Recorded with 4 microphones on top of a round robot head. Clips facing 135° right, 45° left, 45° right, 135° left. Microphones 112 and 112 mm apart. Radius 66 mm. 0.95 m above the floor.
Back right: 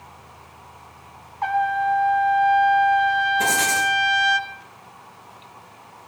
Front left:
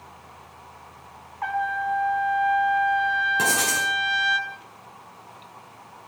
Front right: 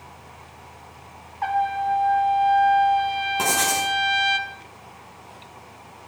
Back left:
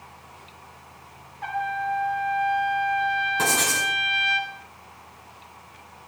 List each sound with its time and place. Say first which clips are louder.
1.4 s a trumpet: back right 5 dB, front right 5 dB; 75° right, 2.5 m
3.4 s writing: back right 3 dB, front right 2 dB; 35° left, 8.5 m